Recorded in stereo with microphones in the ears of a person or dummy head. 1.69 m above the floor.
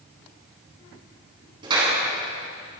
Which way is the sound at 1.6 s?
30° right (ahead or behind).